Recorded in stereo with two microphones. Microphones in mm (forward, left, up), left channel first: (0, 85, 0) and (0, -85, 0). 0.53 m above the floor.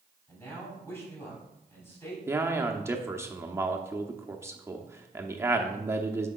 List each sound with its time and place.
0.3 s a man speaking: 15° left (ahead or behind), 3 m
2.3 s a man speaking: 15° right (ahead or behind), 0.7 m